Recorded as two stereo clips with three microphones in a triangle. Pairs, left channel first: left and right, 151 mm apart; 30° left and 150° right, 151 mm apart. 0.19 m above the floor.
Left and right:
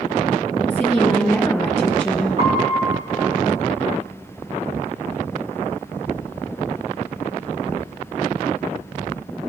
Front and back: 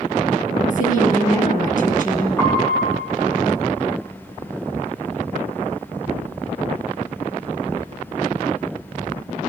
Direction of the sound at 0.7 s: 15° left.